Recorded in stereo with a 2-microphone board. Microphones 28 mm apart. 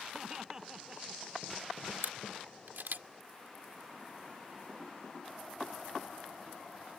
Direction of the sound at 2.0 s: 80° right.